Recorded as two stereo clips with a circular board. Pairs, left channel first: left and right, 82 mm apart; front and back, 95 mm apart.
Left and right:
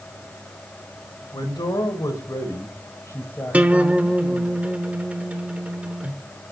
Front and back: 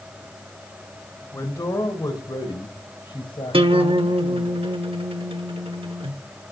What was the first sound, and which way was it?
A man speaking, 60° left.